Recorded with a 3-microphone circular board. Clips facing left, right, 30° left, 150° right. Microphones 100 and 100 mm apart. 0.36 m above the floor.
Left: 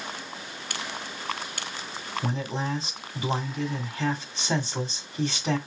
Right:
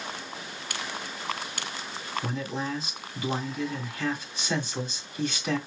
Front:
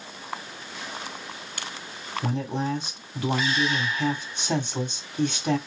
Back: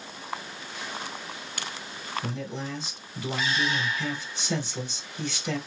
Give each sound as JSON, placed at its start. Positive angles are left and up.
{"t": 2.2, "sound": "a man speaking", "azimuth_deg": 35, "distance_m": 1.8}